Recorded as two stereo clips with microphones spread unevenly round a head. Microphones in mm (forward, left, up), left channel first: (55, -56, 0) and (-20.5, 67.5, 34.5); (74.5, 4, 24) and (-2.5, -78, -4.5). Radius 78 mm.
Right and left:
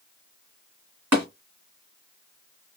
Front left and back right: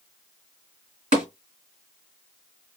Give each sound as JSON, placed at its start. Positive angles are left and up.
{"t": 1.1, "sound": "tapping", "azimuth_deg": -175, "distance_m": 1.8}